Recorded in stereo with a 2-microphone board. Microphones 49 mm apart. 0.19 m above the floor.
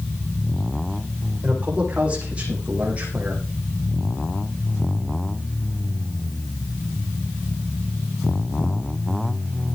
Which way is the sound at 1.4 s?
25° right (ahead or behind).